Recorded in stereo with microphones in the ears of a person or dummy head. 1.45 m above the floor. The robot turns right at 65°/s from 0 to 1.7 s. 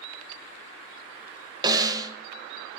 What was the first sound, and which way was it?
A snare drum, 25° right (ahead or behind).